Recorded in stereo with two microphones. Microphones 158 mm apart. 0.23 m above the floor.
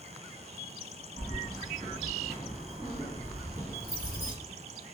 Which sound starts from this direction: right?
Keys jangling, at 1.2 s.